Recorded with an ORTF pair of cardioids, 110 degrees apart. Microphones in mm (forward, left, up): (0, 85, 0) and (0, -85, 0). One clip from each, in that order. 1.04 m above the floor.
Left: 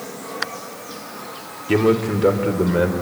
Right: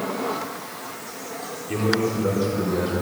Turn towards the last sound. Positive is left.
turn(degrees=60)